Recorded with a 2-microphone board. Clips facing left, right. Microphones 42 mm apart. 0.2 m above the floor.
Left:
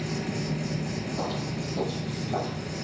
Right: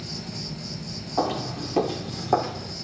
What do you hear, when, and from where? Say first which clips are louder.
0.0 s an insect: left 6 dB; 45° left (ahead or behind), 1.0 m
1.2 s footsteps: right 10 dB; 70° right (ahead or behind), 3 m; by 2.7 s 80° right, 3.5 m